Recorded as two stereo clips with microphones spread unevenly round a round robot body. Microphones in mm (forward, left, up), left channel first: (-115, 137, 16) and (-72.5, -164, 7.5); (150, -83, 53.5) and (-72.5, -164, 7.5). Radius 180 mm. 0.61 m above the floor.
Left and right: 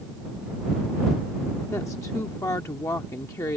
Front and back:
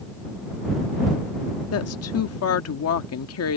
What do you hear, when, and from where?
1.7 s a woman speaking: 15° left